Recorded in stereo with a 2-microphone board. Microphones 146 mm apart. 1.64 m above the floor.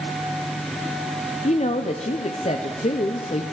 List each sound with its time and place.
1.4 s a woman speaking: 50° left (ahead or behind), 0.5 m